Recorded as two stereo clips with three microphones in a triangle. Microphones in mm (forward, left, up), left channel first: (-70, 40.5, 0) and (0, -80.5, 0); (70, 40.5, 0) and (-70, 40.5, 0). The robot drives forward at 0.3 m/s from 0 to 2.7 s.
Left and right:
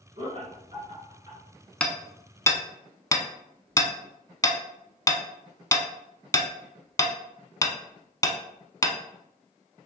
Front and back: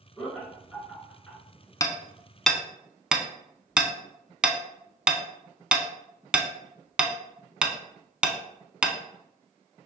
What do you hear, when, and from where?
0.2 s laughter: 85° right, 2.0 m; by 1.4 s 95° right, 2.0 m
1.8 s hammering: 45° left, 0.5 m; by 9.0 s 105° left, 0.5 m